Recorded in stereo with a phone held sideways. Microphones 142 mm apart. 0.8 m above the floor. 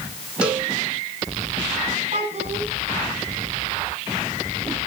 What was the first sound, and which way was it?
A cowbell, 10° right (ahead or behind).